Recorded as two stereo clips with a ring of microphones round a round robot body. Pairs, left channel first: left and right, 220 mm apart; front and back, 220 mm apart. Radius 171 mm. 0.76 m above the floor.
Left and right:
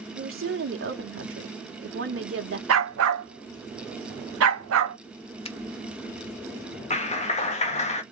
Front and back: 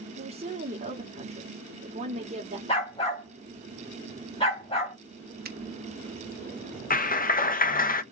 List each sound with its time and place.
0.1 s a woman speaking: 110° right, 1.9 m
2.7 s a dog barking: 70° right, 0.8 m
5.5 s a finger snap: 150° left, 1.2 m
6.9 s a clap: 40° left, 1.0 m